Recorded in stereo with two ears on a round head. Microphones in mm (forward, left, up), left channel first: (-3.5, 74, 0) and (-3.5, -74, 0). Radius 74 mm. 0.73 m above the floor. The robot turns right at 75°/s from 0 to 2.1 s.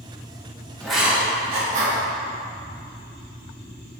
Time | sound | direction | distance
0.8 | writing | 5° left (ahead or behind) | 1.7 m